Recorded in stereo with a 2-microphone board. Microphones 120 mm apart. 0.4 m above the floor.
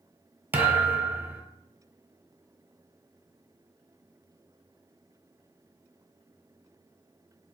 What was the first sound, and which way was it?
A thud, 20° right (ahead or behind).